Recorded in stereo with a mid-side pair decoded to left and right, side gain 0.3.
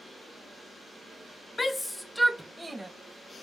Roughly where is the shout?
Ahead left.